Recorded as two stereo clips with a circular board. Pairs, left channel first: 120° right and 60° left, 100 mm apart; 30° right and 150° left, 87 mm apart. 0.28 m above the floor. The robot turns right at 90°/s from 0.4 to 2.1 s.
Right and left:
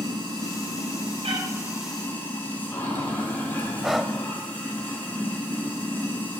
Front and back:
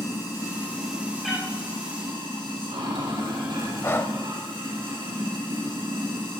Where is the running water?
15° left, 5 m; by 6.4 s 170° left, 5 m.